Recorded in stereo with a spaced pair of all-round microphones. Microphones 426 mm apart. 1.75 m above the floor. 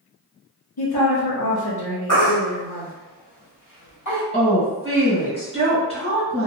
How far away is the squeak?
No squeak in this recording.